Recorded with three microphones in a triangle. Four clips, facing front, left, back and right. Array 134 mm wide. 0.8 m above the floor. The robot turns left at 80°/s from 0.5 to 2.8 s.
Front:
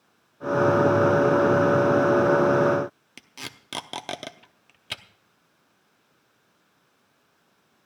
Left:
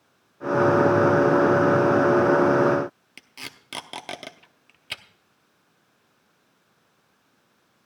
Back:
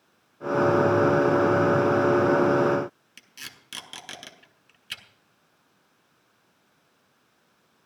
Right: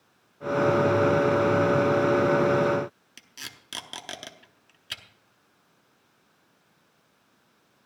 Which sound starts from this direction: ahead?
Tape being pulled, at 3.2 s.